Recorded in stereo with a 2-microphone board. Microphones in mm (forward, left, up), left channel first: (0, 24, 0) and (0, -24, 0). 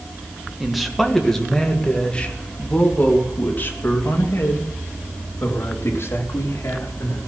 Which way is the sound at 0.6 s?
5° right (ahead or behind).